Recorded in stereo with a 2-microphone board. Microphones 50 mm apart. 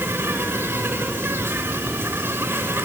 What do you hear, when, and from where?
0.0 s an insect: 45° right (ahead or behind), 3.5 m